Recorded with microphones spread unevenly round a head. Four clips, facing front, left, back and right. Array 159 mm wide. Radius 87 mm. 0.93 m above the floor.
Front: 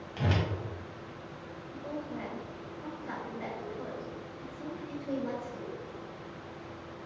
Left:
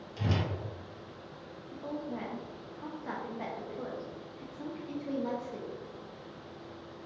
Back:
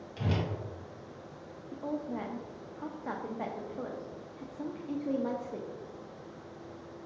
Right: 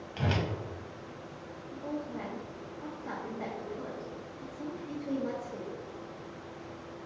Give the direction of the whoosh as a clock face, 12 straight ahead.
1 o'clock.